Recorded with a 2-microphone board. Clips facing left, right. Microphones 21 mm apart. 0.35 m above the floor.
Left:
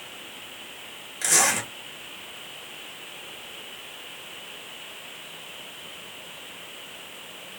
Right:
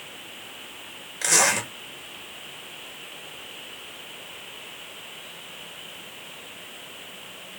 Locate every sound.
1.2 s a zipper: 20° right (ahead or behind), 1.3 m